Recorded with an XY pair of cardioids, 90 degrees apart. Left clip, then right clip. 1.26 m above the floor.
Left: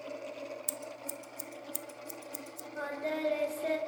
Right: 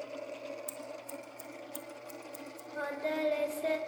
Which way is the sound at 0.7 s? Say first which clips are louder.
Left 1 dB; 60° left.